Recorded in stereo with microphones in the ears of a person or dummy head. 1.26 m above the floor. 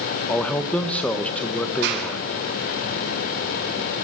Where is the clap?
60° right (ahead or behind), 6.5 m.